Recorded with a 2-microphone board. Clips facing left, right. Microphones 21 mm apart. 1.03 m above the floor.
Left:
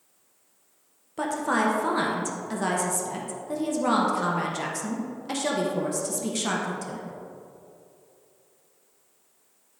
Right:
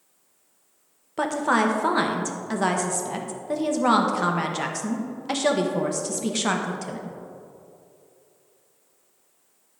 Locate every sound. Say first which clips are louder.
1.2 s a woman speaking: right 3 dB; 20° right (ahead or behind), 0.8 m